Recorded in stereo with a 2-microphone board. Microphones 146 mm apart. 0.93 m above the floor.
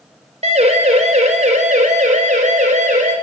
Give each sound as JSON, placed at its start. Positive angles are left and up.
{"t": 0.4, "sound": "a siren", "side_deg": -50, "distance_m": 4.0}